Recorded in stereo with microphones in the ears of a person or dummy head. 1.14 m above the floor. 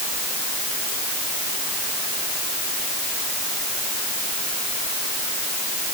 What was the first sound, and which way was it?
Only background noise.